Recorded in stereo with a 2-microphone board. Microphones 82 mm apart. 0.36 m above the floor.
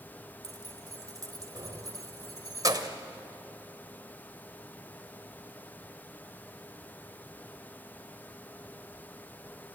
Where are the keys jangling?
50° right (ahead or behind), 1.1 m.